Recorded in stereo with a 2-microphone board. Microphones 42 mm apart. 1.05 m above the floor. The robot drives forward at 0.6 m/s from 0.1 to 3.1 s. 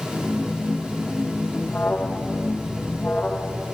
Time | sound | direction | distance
1.7 | an alarm | 50° left (ahead or behind) | 1.8 m